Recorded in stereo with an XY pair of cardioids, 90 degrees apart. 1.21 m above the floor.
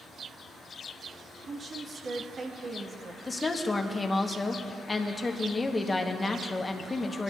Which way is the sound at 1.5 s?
40° right.